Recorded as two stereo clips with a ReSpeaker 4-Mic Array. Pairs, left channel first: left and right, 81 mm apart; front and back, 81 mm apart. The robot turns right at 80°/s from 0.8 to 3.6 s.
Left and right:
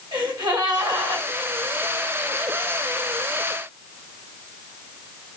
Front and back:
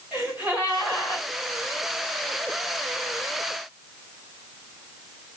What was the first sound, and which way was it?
A gasp, 100° right.